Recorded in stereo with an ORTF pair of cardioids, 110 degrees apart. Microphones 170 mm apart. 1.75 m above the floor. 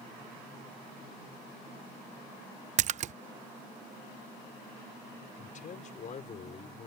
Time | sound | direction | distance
2.8 | a splash | 45° right | ?
5.4 | a man speaking | 50° left | ?